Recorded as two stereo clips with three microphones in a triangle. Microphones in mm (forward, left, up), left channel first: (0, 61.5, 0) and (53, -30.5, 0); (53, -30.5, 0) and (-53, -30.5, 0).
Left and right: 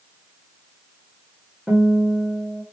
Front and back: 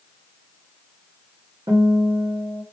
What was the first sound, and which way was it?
A guitar, 140° right.